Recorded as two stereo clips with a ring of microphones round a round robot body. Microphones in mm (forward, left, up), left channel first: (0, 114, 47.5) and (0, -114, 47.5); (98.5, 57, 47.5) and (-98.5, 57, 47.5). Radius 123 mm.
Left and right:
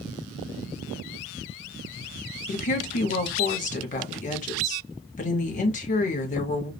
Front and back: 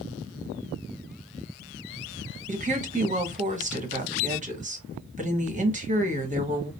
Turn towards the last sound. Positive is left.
turn(degrees=140)